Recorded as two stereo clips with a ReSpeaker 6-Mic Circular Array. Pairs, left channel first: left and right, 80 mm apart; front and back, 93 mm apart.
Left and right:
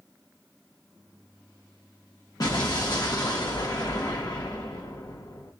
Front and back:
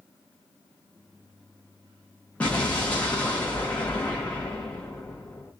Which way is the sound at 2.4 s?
75° left.